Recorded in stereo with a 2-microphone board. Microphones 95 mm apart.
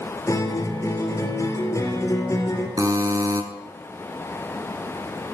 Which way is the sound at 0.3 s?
35° left (ahead or behind).